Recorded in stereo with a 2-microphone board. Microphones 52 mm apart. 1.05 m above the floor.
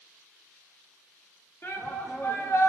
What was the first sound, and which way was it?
A shout, 50° left (ahead or behind).